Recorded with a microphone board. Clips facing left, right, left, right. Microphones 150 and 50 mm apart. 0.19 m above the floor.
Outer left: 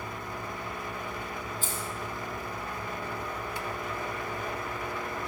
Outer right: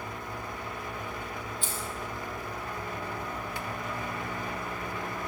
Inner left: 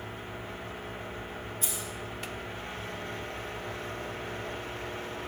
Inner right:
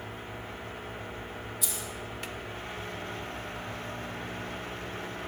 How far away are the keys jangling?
About 4.5 m.